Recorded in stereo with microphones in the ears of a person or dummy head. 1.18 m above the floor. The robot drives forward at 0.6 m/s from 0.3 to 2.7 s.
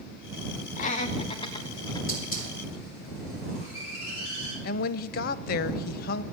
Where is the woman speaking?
55° left (ahead or behind), 0.5 m.